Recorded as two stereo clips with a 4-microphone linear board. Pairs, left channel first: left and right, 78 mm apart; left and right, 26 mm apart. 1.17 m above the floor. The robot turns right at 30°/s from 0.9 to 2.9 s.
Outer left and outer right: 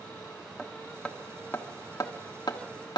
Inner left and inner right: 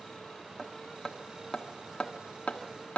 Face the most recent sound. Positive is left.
turn(degrees=65)  # may be behind; listen again after turning